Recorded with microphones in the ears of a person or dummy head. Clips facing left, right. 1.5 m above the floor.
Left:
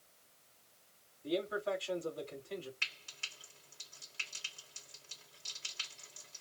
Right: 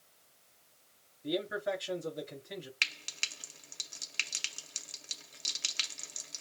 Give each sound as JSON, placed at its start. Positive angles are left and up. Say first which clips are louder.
{"t": 1.2, "sound": "a man speaking", "louder": "right 2 dB", "side_deg": -15, "distance_m": 3.5}
{"t": 2.8, "sound": "frying", "louder": "right 6 dB", "side_deg": -80, "distance_m": 1.3}